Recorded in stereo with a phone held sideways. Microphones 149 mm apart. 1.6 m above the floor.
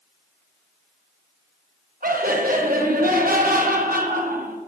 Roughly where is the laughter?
Right.